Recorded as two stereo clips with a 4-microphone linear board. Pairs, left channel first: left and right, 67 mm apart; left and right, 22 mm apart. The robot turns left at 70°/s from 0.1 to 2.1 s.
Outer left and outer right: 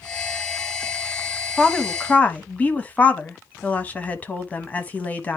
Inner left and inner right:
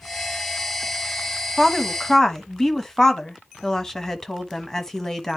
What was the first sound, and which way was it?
A woman speaking, 10° left (ahead or behind).